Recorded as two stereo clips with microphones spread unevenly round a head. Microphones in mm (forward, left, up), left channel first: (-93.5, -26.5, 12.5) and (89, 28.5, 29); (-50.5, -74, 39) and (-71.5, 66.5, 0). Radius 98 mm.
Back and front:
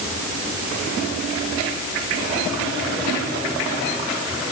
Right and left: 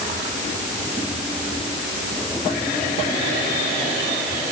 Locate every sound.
Only background noise.